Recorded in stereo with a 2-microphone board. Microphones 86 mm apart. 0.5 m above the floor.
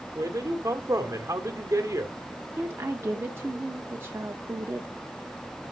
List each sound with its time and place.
0.1 s a man speaking: 35° right (ahead or behind), 1.4 m
2.6 s a woman speaking: 30° right (ahead or behind), 0.7 m